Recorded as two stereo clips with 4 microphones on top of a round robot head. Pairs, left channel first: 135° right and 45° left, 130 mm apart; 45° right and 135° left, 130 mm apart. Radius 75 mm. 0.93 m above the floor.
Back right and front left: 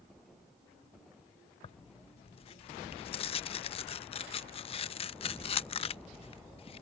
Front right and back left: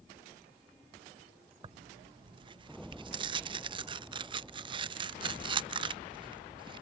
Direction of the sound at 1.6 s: 175° right.